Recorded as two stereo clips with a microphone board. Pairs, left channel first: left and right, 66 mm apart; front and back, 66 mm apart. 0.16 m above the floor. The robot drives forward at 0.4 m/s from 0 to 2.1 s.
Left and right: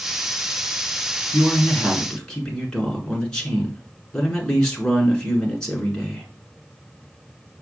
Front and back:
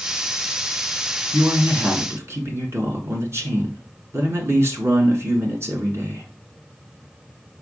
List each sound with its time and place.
1.3 s a man speaking: 160° left, 1.3 m; by 6.3 s 165° left, 1.5 m